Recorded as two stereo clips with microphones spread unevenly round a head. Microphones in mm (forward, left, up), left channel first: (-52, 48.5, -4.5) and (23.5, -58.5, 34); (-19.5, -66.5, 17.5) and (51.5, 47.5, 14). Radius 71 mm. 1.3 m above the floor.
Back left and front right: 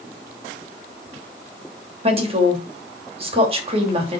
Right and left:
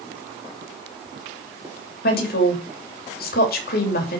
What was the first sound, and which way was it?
A woman speaking, 105° right.